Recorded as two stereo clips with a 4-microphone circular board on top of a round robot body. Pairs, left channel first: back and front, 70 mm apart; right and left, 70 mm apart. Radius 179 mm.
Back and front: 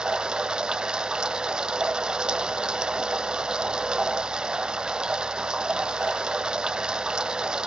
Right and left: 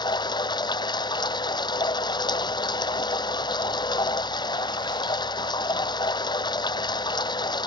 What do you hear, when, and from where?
0.0 s running water: 80° right